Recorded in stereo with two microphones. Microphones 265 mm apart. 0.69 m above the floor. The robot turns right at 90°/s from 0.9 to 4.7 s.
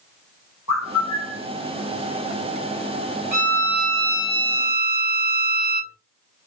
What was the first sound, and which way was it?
A bird, 100° left.